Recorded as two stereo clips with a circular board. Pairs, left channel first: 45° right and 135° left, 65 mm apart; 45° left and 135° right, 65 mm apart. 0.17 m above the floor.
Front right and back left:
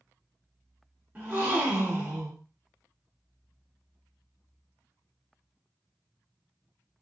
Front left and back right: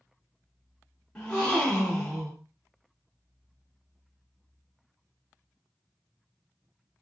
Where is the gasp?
105° left, 1.1 m.